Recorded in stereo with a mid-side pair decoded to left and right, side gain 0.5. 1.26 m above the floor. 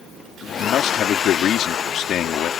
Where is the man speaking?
65° left.